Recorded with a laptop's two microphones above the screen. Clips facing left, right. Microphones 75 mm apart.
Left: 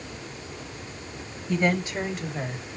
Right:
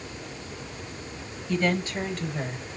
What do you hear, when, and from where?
1.5 s a woman speaking: 15° left (ahead or behind), 4.5 m; by 2.7 s centre (ahead or behind), 4 m